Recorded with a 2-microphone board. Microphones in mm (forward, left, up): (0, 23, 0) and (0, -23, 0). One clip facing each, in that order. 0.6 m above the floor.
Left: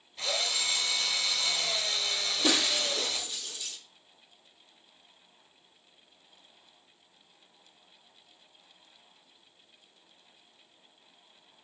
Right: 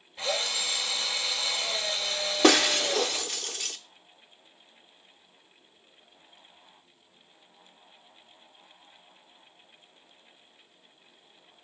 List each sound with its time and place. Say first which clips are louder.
0.2 s a drill: right 2 dB; 20° right (ahead or behind), 2.5 m
2.4 s breaking glass: right 8 dB; 70° right (ahead or behind), 1.0 m